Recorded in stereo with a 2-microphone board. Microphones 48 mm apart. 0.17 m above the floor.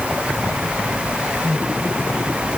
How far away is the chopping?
No chopping in this recording.